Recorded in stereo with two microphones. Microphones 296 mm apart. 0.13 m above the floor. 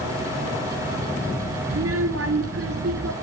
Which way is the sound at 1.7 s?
50° right (ahead or behind).